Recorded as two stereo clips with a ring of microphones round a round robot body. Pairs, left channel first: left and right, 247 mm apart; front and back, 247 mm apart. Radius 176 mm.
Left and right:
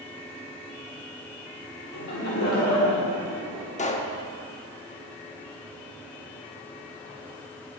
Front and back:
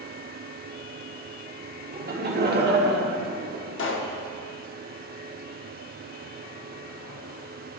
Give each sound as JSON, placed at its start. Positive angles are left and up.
{"t": 1.9, "sound": "laughter", "azimuth_deg": 130, "distance_m": 1.5}
{"t": 3.8, "sound": "a pop", "azimuth_deg": 30, "distance_m": 0.8}